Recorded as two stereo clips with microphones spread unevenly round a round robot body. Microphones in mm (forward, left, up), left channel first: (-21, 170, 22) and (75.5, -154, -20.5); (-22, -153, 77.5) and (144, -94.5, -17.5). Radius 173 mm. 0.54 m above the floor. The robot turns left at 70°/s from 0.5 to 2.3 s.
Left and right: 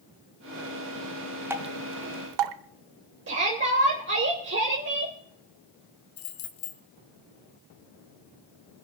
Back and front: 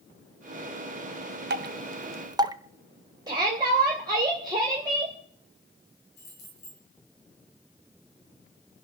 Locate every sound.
1.5 s dripping: 10° left, 0.7 m; by 2.5 s 45° right, 0.7 m
3.3 s a shout: 25° right, 2.5 m
6.2 s keys jangling: 135° left, 2.0 m